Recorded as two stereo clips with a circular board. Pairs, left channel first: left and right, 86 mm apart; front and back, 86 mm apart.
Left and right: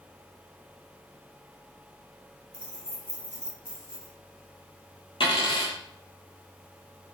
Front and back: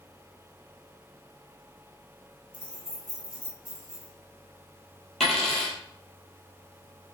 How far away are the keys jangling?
About 1.0 m.